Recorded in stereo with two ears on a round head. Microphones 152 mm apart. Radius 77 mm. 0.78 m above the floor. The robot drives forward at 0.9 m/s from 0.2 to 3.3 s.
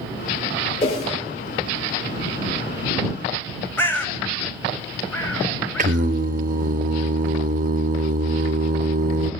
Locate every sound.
0.8 s a whoosh: 35° left (ahead or behind), 3.5 m; by 1.1 s 30° left (ahead or behind), 4 m
3.8 s a bird: 10° left (ahead or behind), 0.8 m
5.8 s singing: 45° right (ahead or behind), 0.7 m